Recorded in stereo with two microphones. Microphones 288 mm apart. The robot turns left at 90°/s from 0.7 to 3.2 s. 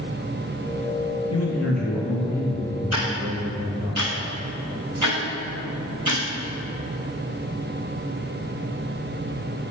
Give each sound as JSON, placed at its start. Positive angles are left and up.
{"t": 1.3, "sound": "a man speaking", "azimuth_deg": 85, "distance_m": 3.0}
{"t": 2.9, "sound": "ticking", "side_deg": -60, "distance_m": 3.0}